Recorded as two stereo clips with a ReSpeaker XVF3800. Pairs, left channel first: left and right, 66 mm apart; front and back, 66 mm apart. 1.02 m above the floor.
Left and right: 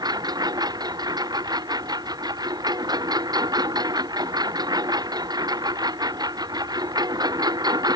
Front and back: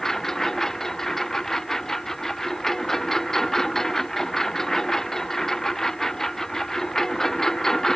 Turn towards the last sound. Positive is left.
turn(degrees=-85)